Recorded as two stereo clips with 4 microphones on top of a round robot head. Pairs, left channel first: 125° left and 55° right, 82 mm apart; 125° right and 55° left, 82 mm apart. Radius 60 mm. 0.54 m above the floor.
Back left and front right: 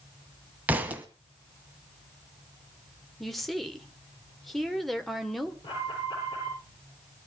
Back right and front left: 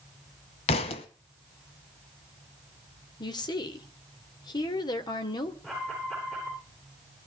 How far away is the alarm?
About 9.5 m.